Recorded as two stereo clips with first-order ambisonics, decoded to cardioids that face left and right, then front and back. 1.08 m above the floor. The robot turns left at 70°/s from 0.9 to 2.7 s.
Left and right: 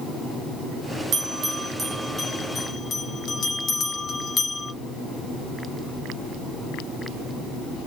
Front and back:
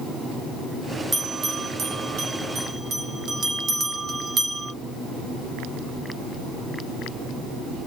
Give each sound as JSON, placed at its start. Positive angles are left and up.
{"t": 1.1, "sound": "a bell", "azimuth_deg": -105, "distance_m": 1.0}